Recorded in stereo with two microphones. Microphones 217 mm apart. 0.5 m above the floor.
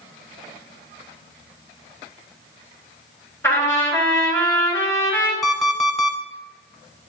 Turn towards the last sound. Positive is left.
turn(degrees=0)  # may be behind; listen again after turning